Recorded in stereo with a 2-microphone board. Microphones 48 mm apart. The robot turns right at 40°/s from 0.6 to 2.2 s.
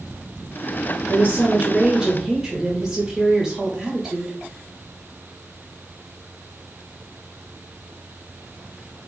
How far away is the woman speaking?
About 1.0 m.